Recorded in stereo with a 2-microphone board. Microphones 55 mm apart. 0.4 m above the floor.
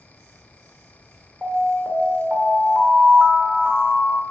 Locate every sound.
1.4 s an alarm: centre (ahead or behind), 1.7 m